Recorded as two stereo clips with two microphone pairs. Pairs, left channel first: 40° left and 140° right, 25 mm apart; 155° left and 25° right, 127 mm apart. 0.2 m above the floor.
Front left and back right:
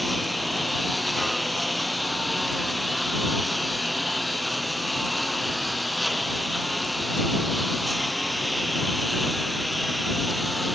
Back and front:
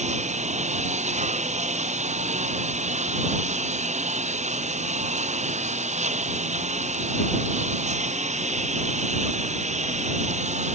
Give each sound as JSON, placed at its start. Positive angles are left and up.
{"t": 0.0, "sound": "a lawn mower", "azimuth_deg": -50}